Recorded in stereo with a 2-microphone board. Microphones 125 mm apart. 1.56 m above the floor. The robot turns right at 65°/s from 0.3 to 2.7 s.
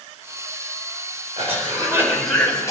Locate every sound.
1.4 s a cough: 60° right, 5 m; by 2.7 s 25° left, 5 m